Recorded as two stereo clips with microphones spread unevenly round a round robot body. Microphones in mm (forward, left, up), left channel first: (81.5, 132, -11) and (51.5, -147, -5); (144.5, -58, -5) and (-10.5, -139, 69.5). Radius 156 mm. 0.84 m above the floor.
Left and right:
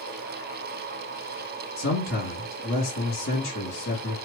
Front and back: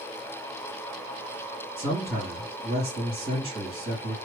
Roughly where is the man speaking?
Behind left.